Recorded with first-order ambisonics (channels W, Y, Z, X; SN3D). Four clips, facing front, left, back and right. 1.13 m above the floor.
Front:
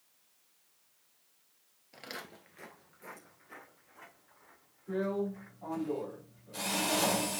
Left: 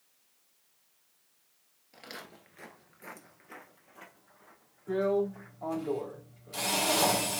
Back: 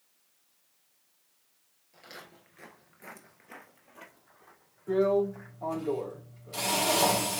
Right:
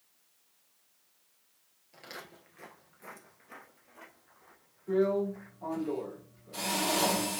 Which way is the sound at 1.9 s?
10° left.